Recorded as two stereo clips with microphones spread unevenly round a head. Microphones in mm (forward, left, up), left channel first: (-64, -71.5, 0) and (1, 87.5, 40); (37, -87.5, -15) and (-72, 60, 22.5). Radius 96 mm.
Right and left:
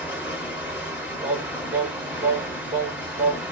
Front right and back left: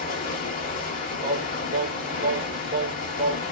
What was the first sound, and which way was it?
Running water, 5° right.